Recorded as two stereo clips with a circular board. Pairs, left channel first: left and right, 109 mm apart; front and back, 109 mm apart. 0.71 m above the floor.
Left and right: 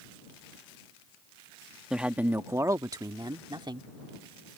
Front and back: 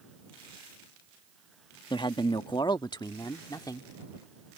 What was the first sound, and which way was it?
A man speaking, 5° right.